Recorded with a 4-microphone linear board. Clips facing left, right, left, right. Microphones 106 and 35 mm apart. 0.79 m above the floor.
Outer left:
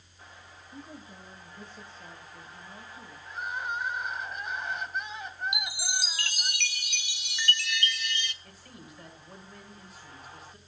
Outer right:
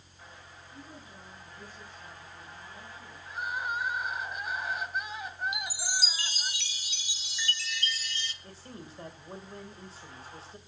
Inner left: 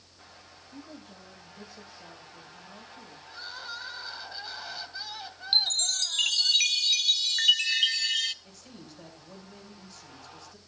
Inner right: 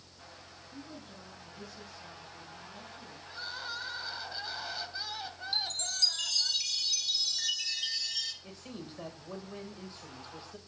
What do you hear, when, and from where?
0.7 s a woman speaking: 25° left (ahead or behind), 9 m
3.3 s crying: 5° right (ahead or behind), 1.9 m
5.5 s a chime: 65° left (ahead or behind), 0.7 m
8.4 s a man speaking: 30° right (ahead or behind), 3.5 m